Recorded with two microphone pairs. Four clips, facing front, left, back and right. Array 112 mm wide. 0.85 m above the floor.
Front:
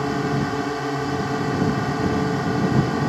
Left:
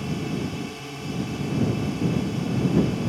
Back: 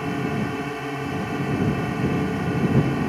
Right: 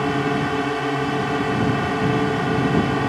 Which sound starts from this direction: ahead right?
A drone, at 0.0 s.